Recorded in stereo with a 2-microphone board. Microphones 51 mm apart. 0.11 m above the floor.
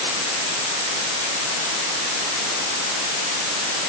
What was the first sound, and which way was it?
Only background noise.